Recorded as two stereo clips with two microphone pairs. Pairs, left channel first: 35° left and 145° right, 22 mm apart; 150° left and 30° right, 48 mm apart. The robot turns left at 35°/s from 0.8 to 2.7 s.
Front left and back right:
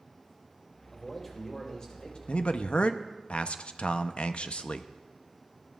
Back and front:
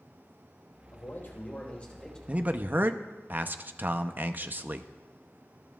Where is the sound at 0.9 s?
120° left, 3.5 m; by 2.2 s 75° left, 3.5 m.